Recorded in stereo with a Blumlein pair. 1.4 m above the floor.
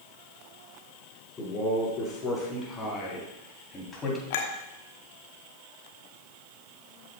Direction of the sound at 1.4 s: 20° left.